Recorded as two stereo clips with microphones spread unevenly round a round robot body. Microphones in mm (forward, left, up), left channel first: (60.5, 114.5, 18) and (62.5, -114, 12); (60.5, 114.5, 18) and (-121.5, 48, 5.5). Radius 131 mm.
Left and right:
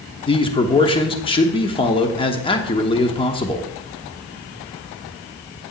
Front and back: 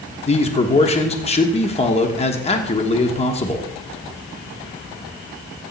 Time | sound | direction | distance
0.3 | a man speaking | 45° left | 1.2 m